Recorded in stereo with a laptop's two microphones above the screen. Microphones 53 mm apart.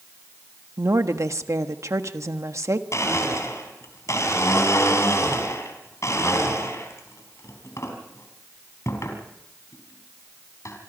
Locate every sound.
0.8 s a woman speaking: 80° right, 1.3 m
2.9 s a blender: 75° left (ahead or behind), 4 m